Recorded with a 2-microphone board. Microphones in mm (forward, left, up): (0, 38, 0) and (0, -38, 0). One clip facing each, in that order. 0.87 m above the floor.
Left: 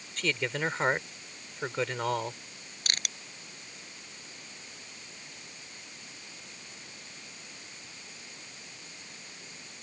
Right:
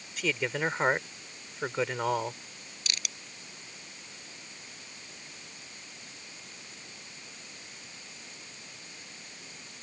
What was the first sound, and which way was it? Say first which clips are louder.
A man speaking: right 1 dB; 5° right (ahead or behind).